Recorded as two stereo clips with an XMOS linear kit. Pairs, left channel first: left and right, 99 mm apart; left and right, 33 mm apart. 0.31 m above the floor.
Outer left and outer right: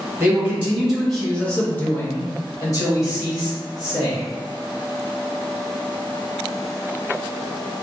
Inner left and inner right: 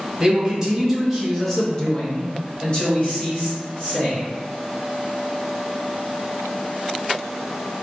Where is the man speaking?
20° right (ahead or behind), 1.1 m; by 4.2 s 45° left (ahead or behind), 2 m.